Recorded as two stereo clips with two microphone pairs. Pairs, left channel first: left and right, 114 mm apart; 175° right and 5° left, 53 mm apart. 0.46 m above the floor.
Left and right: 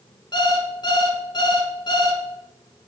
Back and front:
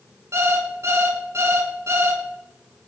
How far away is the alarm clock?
About 2.5 m.